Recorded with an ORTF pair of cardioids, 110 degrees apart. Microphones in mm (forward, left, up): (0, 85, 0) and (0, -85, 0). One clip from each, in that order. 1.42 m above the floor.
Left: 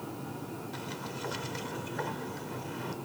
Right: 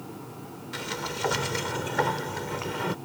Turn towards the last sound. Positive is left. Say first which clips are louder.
# right 11 dB
turn(degrees=-60)